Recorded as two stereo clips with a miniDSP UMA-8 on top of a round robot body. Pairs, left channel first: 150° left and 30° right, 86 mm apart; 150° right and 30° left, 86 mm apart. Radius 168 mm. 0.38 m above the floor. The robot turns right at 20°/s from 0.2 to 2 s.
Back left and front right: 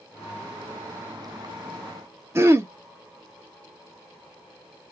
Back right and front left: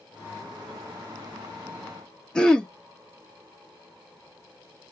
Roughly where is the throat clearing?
Right.